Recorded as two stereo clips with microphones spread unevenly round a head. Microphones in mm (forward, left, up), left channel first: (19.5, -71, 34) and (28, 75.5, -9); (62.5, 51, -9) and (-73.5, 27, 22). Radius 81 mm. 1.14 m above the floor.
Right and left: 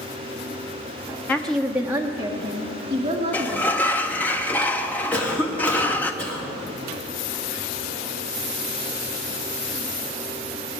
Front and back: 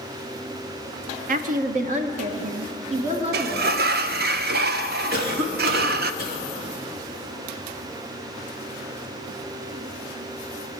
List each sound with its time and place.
1.3 s a woman speaking: 175° left, 0.8 m; by 4.3 s 145° left, 3 m
3.3 s a sliding door: straight behind, 0.7 m
5.1 s a cough: straight behind, 3.5 m